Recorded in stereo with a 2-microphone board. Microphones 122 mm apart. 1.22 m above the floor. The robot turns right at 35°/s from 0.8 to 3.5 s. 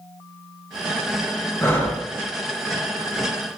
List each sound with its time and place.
1.6 s breathing: 25° left (ahead or behind), 0.6 m; by 2.0 s 10° left (ahead or behind), 0.6 m